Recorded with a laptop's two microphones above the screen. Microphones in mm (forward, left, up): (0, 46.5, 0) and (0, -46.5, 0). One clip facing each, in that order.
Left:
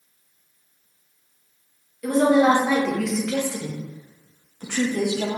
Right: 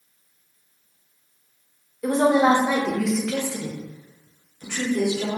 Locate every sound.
2.0 s a woman speaking: 30° right (ahead or behind), 1.2 m; by 5.4 s 65° left (ahead or behind), 1.3 m